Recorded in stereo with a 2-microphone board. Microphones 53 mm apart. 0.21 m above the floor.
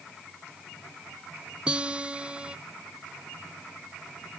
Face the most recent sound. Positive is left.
turn(degrees=-20)  # may be behind; listen again after turning